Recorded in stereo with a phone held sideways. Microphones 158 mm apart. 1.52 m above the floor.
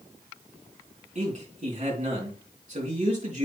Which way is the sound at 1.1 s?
45° right (ahead or behind).